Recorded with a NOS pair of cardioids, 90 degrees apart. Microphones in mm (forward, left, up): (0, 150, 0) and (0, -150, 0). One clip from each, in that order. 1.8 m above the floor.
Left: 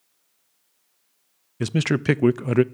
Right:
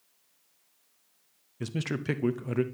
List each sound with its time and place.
1.6 s a man speaking: 40° left, 0.5 m